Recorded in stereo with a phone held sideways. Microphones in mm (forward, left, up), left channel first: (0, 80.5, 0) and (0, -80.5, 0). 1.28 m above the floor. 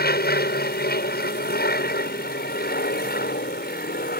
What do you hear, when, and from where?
0.0 s an aircraft: 75° left (ahead or behind)